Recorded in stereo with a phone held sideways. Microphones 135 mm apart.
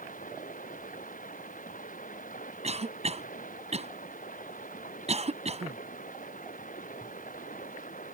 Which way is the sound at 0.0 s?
80° left.